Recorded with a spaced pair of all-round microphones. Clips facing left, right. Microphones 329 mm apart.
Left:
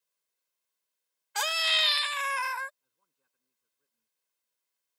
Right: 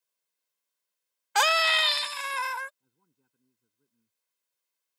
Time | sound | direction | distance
1.4 | a scream | 85° right | ?
2.8 | a man speaking | 55° right (ahead or behind) | ?